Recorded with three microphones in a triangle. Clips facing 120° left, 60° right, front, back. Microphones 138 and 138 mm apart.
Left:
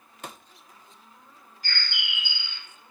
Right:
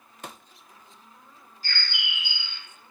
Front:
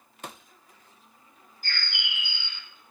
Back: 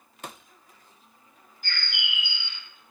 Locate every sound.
1.6 s a bird: 20° right, 0.7 m